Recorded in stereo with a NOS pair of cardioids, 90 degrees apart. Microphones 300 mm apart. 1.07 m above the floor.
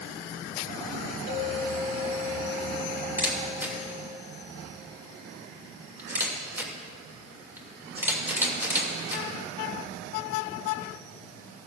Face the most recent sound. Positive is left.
turn(degrees=-5)